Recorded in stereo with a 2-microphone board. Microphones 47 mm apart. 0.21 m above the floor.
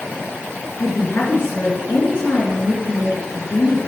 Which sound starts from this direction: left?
A woman speaking, at 0.8 s.